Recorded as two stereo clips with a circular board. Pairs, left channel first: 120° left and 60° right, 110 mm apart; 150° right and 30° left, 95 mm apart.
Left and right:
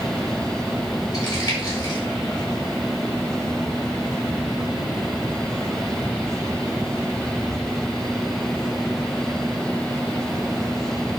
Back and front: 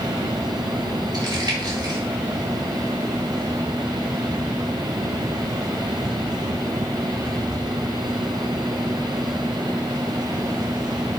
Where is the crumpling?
70° left, 5 m.